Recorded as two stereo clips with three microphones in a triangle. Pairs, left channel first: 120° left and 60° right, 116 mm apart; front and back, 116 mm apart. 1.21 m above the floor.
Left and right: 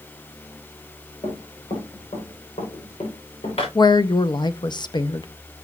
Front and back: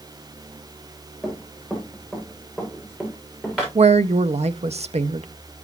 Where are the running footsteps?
100° left, 7 m.